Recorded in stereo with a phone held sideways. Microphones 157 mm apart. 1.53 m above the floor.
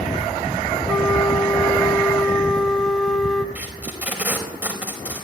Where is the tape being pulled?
10° right (ahead or behind), 5 m.